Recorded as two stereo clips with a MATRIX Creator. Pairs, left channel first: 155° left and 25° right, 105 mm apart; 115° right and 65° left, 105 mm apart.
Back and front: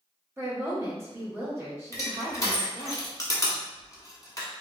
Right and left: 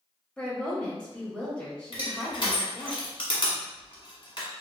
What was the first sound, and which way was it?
A woman speaking, 45° right.